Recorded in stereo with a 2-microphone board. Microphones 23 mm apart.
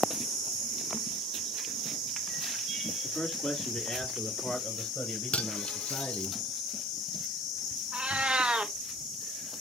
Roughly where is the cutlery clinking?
Left.